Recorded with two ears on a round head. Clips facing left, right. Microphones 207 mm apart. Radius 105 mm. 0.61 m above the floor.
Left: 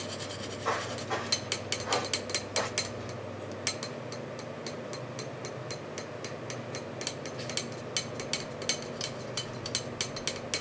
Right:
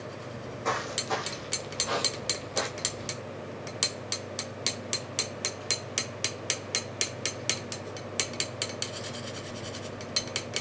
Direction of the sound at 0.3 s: 50° right (ahead or behind).